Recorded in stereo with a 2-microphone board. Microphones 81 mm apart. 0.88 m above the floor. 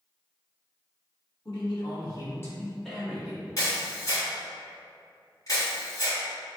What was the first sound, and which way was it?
A man speaking, 65° left (ahead or behind).